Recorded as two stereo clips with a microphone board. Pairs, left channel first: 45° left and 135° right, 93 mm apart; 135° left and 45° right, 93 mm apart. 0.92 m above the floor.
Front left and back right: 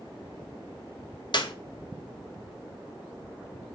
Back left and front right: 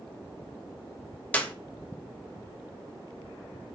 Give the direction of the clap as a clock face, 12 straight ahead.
10 o'clock.